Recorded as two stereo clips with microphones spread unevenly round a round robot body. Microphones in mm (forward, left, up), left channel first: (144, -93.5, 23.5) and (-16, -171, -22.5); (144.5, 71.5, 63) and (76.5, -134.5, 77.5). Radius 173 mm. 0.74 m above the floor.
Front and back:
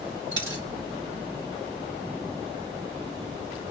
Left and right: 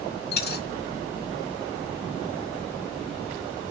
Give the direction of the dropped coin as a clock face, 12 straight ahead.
7 o'clock.